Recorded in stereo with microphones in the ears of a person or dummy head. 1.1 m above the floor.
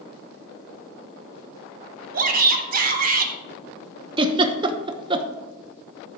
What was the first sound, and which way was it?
A shout, 50° right (ahead or behind).